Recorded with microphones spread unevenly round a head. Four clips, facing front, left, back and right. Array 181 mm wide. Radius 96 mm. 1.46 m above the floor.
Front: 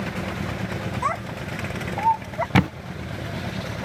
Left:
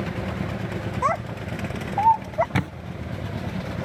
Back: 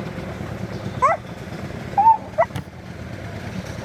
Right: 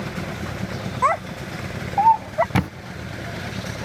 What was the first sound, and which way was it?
A child speaking, 175° right.